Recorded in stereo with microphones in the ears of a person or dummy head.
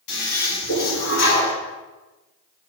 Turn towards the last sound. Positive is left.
turn(degrees=70)  # may be behind; listen again after turning